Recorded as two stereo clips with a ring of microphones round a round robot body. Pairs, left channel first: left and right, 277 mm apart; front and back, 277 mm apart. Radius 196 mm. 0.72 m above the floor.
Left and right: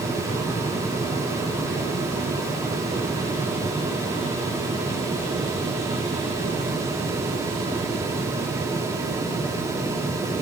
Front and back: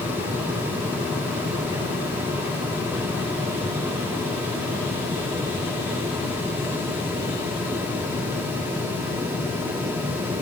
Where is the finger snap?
No finger snap in this recording.